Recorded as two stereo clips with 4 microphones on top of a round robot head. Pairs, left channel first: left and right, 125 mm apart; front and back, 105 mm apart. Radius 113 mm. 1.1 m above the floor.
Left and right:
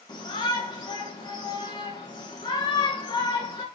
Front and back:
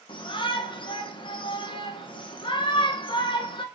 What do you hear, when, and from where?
0.1 s a shout: 35° left, 1.3 m